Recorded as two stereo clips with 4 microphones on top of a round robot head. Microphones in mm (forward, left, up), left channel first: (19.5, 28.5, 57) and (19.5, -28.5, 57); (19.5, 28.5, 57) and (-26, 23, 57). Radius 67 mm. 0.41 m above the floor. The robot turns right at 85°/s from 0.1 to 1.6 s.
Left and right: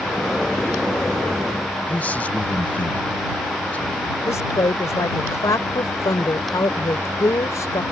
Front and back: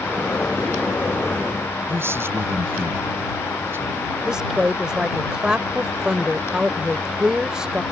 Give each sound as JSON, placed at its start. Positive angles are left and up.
{"t": 1.9, "sound": "a man speaking", "azimuth_deg": 160}
{"t": 4.2, "sound": "a woman speaking", "azimuth_deg": 115}